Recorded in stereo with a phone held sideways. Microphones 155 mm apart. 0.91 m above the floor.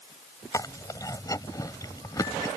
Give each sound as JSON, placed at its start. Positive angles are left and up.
{"t": 0.5, "sound": "chewing", "side_deg": 25}